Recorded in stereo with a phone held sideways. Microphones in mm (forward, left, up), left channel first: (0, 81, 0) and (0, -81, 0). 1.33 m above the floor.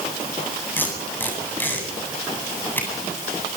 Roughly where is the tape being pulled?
Centre.